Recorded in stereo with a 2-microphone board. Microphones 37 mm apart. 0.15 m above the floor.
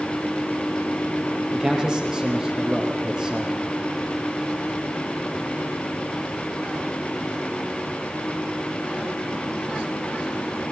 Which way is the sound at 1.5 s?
10° right (ahead or behind).